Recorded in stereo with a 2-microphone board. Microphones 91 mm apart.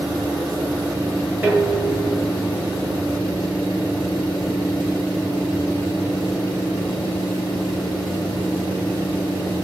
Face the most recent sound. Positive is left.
turn(degrees=-20)  # may be behind; listen again after turning